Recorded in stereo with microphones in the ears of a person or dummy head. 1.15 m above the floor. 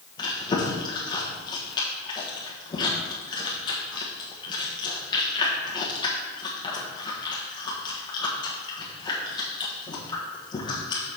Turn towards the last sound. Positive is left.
turn(degrees=25)  # may be behind; listen again after turning